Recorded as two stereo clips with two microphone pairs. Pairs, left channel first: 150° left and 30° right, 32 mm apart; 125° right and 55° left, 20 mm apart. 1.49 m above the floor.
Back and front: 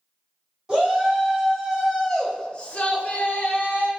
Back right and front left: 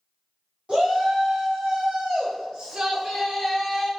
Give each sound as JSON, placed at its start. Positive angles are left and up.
{"t": 0.7, "sound": "a shout", "azimuth_deg": 40, "distance_m": 1.8}